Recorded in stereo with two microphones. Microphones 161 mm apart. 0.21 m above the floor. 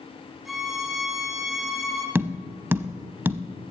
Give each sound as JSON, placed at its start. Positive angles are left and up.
{"t": 0.5, "sound": "a violin", "side_deg": 0, "distance_m": 1.6}
{"t": 2.1, "sound": "tapping", "side_deg": -15, "distance_m": 0.5}